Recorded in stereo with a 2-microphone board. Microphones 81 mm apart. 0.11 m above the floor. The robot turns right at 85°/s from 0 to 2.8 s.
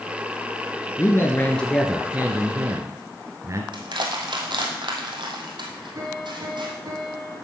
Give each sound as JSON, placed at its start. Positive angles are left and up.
{"t": 1.0, "sound": "a man speaking", "azimuth_deg": 110, "distance_m": 1.6}
{"t": 3.7, "sound": "crushing", "side_deg": -70, "distance_m": 2.0}
{"t": 6.0, "sound": "a piano", "side_deg": -50, "distance_m": 4.0}